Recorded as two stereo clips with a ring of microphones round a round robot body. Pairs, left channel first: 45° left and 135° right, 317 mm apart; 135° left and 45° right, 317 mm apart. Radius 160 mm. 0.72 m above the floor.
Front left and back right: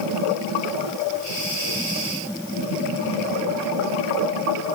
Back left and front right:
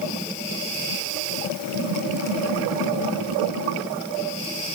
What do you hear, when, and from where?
Only background noise.